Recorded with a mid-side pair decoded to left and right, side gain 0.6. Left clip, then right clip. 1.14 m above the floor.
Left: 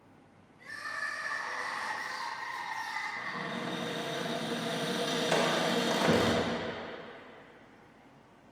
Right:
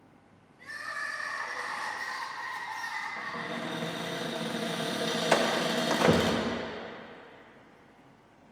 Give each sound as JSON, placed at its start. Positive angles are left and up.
{"t": 0.6, "sound": "crying", "azimuth_deg": -20, "distance_m": 1.6}
{"t": 3.2, "sound": "a cupboard door", "azimuth_deg": -25, "distance_m": 1.4}
{"t": 5.3, "sound": "a door slam", "azimuth_deg": -35, "distance_m": 0.6}